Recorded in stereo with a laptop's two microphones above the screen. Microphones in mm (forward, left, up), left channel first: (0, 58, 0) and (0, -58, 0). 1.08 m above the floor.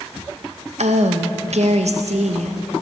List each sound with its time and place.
0.8 s a woman speaking: 70° right (ahead or behind), 0.6 m